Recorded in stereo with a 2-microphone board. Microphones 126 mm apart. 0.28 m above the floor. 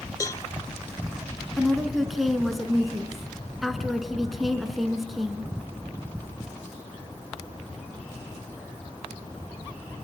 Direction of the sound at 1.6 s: Centre (ahead or behind).